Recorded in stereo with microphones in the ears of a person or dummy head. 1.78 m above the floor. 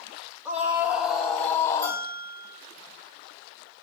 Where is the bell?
20° right (ahead or behind), 7.5 m.